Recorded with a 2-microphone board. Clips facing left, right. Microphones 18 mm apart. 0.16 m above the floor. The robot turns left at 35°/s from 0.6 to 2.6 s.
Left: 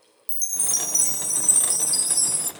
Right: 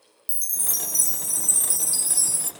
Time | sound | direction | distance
0.3 | a chime | 85° left | 0.7 m